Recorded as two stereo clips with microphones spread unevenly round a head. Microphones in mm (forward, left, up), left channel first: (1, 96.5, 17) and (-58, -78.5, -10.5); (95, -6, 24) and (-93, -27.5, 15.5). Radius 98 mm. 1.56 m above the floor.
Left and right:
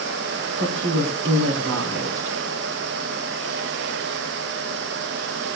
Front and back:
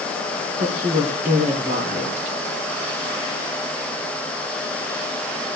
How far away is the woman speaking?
About 3.5 m.